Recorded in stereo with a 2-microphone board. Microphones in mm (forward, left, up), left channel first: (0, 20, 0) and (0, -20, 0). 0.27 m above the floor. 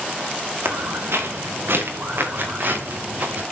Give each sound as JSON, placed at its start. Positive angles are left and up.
{"t": 0.7, "sound": "footsteps", "side_deg": -75, "distance_m": 3.5}